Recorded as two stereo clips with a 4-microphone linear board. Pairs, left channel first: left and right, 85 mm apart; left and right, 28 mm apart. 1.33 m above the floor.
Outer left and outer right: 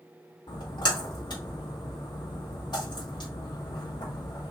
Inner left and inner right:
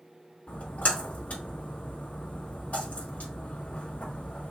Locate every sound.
0.5 s a splash: 60° left (ahead or behind), 2.5 m